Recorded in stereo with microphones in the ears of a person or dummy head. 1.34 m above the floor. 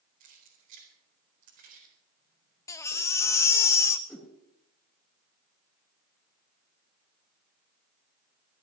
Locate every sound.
0.2 s keys jangling: 45° right (ahead or behind), 4 m
2.7 s a baby crying: 15° left (ahead or behind), 0.8 m
4.1 s a whoosh: 10° left (ahead or behind), 3 m